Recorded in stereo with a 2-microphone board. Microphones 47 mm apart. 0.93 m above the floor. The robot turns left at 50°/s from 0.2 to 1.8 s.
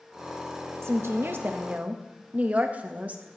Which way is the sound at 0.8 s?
95° right.